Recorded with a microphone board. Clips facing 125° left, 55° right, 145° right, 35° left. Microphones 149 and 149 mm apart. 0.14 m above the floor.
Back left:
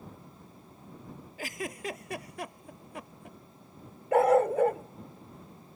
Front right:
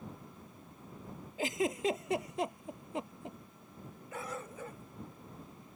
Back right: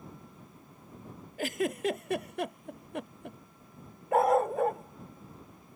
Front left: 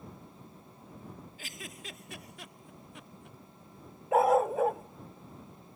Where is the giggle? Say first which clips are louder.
Front right 6 dB, back right 17 dB; 120° right.